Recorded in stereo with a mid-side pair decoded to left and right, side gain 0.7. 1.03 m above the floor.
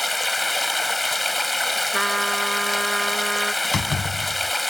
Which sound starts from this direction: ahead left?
A door slam, at 3.6 s.